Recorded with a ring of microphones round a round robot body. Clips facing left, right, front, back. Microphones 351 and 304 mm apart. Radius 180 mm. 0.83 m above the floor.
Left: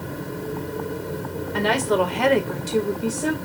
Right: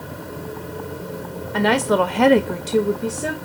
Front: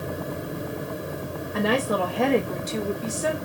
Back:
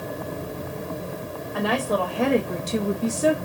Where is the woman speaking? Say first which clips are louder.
Right 3 dB, front 1 dB; 65° right, 0.8 m; by 3.4 s 175° left, 0.7 m.